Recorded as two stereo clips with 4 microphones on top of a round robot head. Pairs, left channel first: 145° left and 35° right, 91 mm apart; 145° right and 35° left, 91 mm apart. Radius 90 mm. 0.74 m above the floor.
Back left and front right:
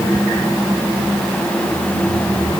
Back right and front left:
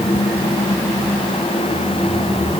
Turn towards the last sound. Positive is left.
No sound to turn to.